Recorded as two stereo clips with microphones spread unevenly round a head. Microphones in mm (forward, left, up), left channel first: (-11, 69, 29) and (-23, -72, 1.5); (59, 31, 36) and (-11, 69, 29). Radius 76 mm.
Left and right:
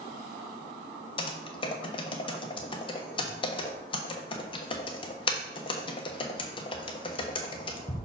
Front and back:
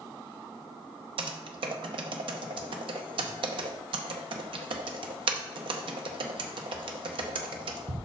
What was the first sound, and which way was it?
Typing on a keyboard, 135° left.